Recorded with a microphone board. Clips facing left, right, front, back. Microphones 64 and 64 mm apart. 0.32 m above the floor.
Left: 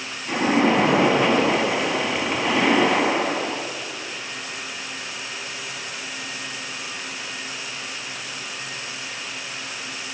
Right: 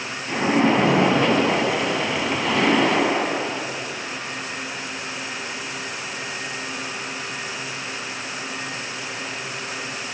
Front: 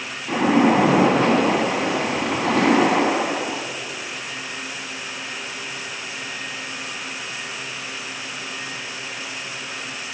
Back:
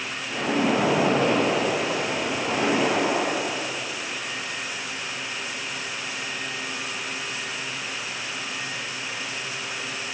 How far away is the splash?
About 0.8 m.